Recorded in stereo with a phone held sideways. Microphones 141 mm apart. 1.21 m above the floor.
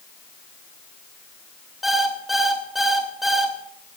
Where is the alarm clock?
Centre (ahead or behind), 2 m.